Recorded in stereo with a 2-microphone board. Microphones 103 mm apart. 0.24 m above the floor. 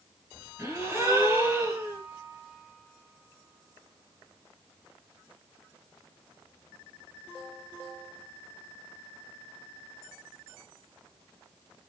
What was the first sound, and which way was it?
A gasp, 25° right (ahead or behind).